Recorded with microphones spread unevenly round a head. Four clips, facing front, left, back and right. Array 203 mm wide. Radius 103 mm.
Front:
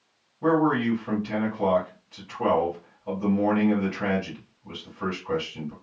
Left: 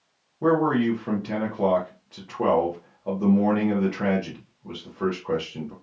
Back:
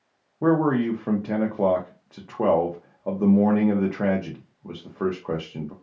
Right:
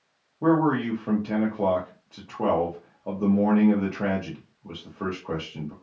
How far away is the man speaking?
About 0.8 m.